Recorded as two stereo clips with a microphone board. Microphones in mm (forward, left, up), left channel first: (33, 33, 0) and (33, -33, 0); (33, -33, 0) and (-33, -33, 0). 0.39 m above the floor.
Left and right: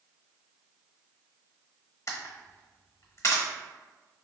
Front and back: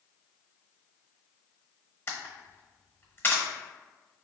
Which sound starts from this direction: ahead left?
A camera shutter, at 2.1 s.